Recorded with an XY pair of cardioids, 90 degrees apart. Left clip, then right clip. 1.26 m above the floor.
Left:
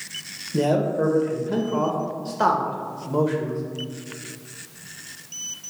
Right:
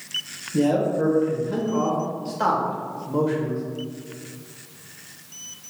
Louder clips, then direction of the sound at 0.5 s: Even; 40° left.